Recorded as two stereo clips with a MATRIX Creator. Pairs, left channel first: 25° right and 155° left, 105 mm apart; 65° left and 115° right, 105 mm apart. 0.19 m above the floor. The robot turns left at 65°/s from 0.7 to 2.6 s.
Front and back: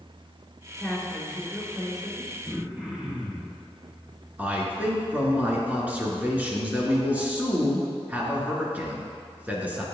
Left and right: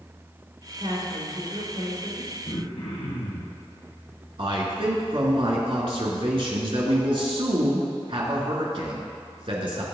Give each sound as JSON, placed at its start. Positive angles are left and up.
{"t": 0.8, "sound": "a woman speaking", "azimuth_deg": -85, "distance_m": 4.0}
{"t": 2.5, "sound": "throat clearing", "azimuth_deg": 90, "distance_m": 3.0}
{"t": 4.4, "sound": "a man speaking", "azimuth_deg": -130, "distance_m": 2.5}